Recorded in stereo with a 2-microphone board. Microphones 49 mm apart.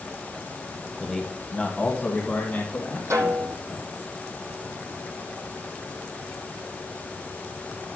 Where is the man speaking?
Centre (ahead or behind), 1.2 m; by 3.9 s 40° left (ahead or behind), 3.5 m.